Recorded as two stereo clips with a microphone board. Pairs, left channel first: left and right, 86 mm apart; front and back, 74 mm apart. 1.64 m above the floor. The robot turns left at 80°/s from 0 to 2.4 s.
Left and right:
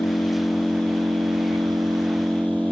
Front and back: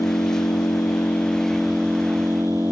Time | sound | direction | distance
0.0 | an engine running | 35° left | 2 m